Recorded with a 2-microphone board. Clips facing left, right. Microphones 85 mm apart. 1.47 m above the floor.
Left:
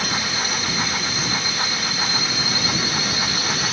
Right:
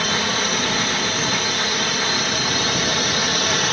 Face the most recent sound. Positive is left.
turn(degrees=-60)  # may be behind; listen again after turning